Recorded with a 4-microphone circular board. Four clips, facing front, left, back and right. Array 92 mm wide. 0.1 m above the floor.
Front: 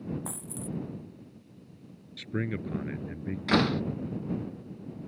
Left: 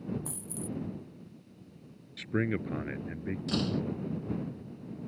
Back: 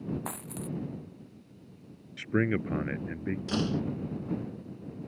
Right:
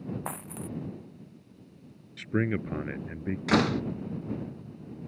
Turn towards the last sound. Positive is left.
turn(degrees=-60)